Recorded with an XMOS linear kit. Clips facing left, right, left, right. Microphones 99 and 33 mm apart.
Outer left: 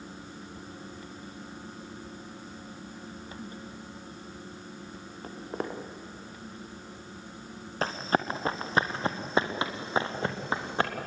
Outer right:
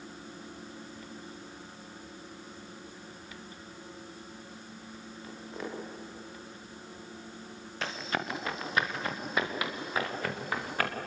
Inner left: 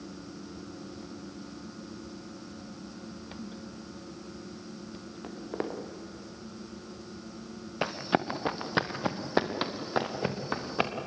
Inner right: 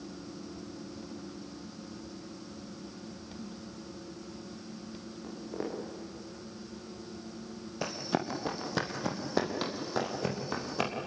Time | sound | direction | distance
5.2 | footsteps | 45° left (ahead or behind) | 4 m
7.8 | running footsteps | 35° left (ahead or behind) | 2.5 m